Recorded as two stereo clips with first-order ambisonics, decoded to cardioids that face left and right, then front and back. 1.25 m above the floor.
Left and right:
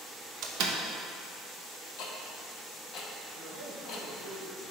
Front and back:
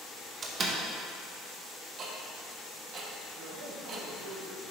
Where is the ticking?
125° left, 0.8 m.